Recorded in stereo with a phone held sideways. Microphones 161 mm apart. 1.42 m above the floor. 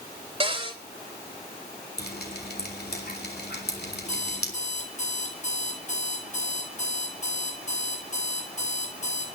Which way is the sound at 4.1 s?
45° left (ahead or behind).